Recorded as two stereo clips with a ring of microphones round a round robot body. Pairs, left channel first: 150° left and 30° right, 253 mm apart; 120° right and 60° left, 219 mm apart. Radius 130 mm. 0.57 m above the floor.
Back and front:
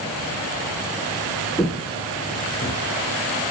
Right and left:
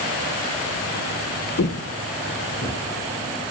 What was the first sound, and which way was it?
Footsteps, 115° right.